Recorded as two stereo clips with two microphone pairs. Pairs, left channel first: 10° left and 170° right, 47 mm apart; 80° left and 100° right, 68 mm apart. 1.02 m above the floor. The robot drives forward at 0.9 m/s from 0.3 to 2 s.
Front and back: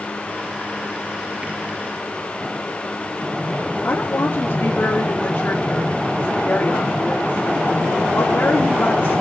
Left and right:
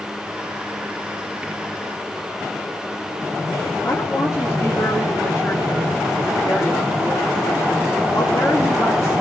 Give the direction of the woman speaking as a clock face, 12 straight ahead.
11 o'clock.